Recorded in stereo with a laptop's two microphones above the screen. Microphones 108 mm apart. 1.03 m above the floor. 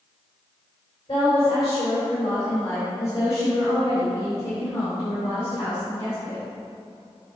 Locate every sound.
1.1 s a woman speaking: 35° left (ahead or behind), 3 m; by 6.4 s 25° left (ahead or behind), 5.5 m